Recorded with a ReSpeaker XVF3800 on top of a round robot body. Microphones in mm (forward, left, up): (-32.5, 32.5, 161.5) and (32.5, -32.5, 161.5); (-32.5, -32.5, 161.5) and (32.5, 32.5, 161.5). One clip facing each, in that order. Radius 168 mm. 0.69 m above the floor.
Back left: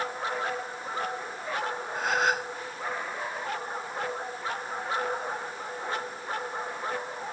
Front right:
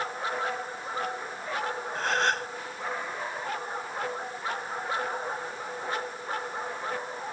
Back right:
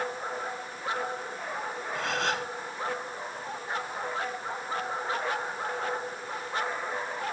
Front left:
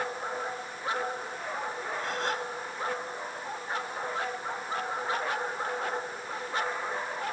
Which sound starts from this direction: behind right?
A gasp, at 1.9 s.